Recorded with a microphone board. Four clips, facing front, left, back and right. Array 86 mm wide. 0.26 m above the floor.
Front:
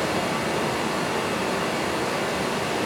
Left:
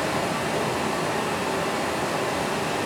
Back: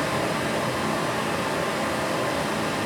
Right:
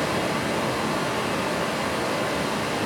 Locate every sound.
0.0 s running water: 25° right, 0.9 m